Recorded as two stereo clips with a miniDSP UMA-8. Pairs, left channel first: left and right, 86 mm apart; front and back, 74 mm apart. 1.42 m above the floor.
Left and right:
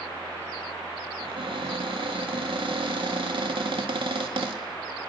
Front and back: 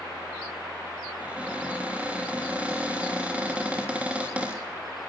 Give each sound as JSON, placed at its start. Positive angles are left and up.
{"t": 1.2, "sound": "a cupboard door", "azimuth_deg": -105, "distance_m": 3.5}